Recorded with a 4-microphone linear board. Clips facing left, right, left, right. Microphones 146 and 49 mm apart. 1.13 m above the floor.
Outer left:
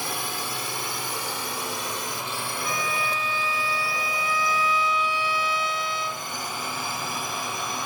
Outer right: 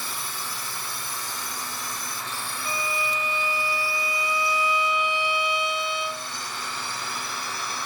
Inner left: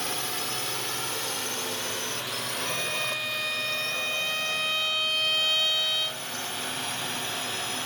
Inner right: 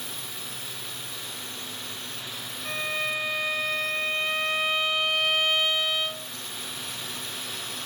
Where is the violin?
20° right (ahead or behind).